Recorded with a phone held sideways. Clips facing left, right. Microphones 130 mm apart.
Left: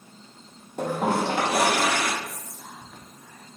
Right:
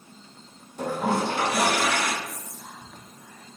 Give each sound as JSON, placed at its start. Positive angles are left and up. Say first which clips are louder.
{"t": 0.8, "sound": "a toilet flushing", "louder": "left 1 dB", "side_deg": 65, "distance_m": 0.9}
{"t": 2.2, "sound": "whispering", "louder": "even", "side_deg": 5, "distance_m": 0.7}